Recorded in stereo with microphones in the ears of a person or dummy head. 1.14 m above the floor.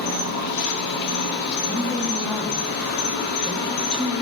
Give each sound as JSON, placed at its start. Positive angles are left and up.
{"t": 0.0, "sound": "an insect", "side_deg": 50, "distance_m": 1.7}
{"t": 1.7, "sound": "a woman speaking", "side_deg": 0, "distance_m": 2.0}